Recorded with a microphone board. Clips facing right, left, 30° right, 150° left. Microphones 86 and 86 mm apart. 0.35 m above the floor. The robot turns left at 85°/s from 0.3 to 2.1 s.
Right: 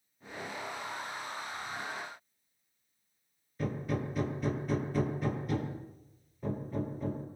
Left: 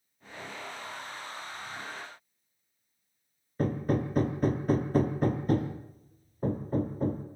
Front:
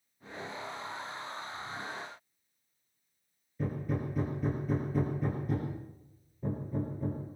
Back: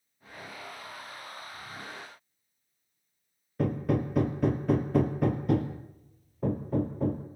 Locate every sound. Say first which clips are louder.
3.6 s hammering: left 6 dB, back 7 dB; 135° left, 2.5 m